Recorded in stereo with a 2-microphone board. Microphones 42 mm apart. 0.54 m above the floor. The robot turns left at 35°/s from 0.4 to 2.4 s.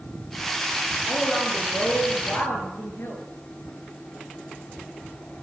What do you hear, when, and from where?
1.1 s a woman speaking: 160° left, 8.5 m; by 3.2 s 115° left, 8.5 m